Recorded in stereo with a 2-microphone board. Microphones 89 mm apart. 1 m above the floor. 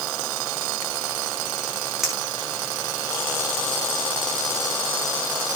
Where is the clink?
5° right (ahead or behind), 3 m.